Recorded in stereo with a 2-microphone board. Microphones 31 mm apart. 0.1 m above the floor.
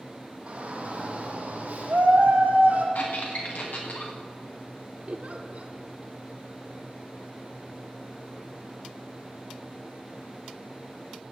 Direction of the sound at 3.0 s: 60° left (ahead or behind).